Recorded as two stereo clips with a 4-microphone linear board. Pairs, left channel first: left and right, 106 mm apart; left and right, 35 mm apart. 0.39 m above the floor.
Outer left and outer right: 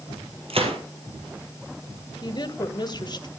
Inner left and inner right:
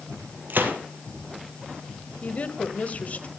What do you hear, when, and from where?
0.5 s a gunshot: 60° right (ahead or behind), 3 m
2.2 s a woman speaking: 40° left (ahead or behind), 1.6 m